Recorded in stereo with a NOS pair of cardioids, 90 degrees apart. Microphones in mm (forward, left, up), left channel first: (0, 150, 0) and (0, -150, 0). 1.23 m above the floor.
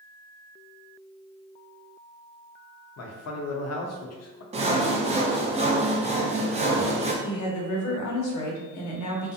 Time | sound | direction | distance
3.0 | a man speaking | 60° left | 0.7 m
4.5 | sawing | 20° right | 0.5 m
7.2 | a woman speaking | 70° left | 0.9 m